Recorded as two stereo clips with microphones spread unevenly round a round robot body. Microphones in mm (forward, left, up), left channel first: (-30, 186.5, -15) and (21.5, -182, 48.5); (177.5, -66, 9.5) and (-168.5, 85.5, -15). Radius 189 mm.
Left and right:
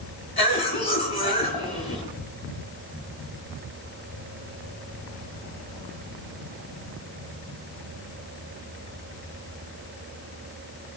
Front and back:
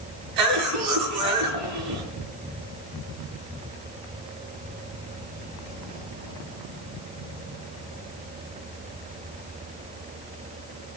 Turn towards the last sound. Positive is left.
turn(degrees=165)